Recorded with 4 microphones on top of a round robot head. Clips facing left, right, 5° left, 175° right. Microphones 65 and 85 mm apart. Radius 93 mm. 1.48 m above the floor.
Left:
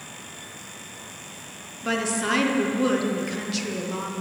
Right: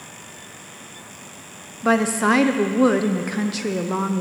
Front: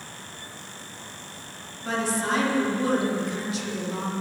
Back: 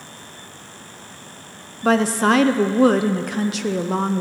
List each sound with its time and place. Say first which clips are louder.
1.8 s a woman speaking: right 7 dB, back 10 dB; 145° right, 0.7 m